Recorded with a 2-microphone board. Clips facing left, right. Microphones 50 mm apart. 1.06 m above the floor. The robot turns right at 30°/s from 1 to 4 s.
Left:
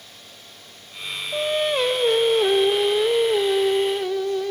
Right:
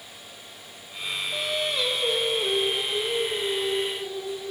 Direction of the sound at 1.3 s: 35° left.